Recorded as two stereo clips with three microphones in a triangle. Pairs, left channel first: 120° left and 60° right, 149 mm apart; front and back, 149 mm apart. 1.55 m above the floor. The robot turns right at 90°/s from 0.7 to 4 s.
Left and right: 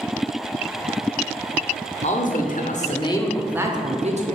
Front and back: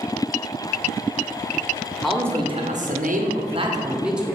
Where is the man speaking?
85° left, 0.8 m; by 4.3 s 100° right, 0.8 m.